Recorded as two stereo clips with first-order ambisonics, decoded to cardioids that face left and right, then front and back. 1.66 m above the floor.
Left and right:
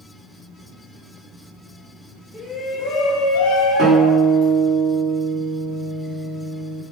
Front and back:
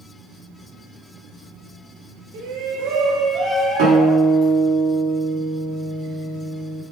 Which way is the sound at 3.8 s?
150° right.